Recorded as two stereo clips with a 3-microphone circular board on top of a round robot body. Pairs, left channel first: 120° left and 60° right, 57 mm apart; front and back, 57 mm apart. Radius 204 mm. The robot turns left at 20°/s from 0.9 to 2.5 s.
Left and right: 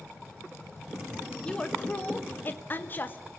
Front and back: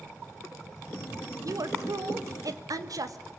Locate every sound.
1.4 s a woman speaking: 165° right, 2.5 m; by 3.3 s 175° left, 2.5 m